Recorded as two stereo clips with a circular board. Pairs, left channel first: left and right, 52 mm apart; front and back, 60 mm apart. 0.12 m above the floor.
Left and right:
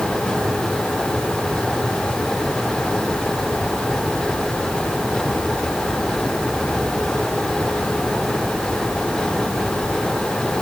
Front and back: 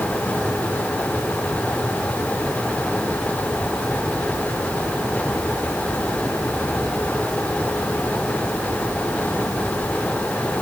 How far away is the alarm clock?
I don't hear an alarm clock.